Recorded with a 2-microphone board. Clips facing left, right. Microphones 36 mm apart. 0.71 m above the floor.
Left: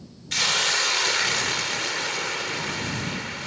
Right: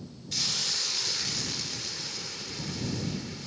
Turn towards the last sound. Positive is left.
turn(degrees=75)  # may be behind; listen again after turning